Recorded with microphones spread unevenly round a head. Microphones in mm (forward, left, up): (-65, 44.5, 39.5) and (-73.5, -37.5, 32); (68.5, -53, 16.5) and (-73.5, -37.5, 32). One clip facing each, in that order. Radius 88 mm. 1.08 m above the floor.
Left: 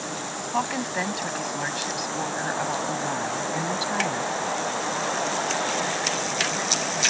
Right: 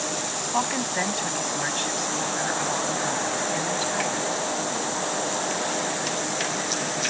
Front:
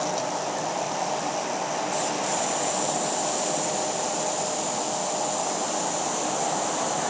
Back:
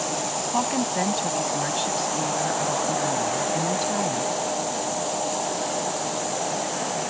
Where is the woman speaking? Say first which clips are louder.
Even, back 4 dB; 175° left; by 4.3 s 150° left.